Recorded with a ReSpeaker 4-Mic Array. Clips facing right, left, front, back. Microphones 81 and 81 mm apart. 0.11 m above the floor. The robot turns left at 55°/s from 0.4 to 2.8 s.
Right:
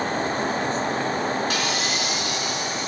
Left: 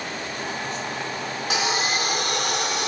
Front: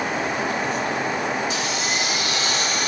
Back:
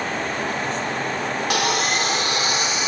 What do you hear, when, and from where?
1.5 s sawing: 170° left, 2 m; by 2.9 s 100° left, 2 m